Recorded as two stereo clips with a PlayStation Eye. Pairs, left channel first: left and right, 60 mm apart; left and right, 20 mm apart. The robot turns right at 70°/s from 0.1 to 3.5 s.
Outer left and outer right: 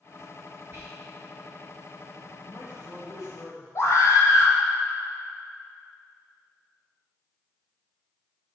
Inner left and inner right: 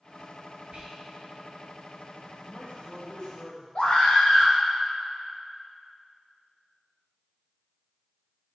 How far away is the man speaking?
About 1.6 m.